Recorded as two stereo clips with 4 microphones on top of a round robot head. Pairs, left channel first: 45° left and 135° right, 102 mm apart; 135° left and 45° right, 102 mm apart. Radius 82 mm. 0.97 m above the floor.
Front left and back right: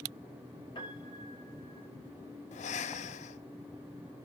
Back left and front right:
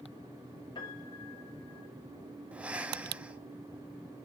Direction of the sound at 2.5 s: 35° left.